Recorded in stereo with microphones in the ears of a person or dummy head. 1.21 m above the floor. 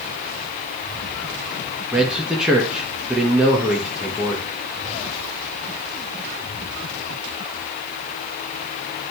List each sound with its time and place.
1.9 s a man speaking: 5° right (ahead or behind), 1.8 m